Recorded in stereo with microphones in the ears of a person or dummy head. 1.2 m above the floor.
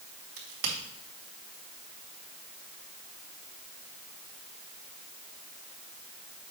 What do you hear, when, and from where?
0.4 s a crack: 75° right (ahead or behind), 2.5 m